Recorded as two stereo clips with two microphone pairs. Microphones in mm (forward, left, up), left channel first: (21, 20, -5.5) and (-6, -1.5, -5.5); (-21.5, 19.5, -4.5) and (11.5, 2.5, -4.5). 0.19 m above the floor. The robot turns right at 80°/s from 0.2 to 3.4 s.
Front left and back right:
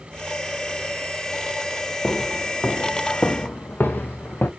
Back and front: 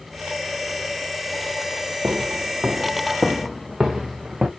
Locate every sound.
2.0 s footsteps: 10° right, 1.3 m; by 4.5 s 35° left, 1.4 m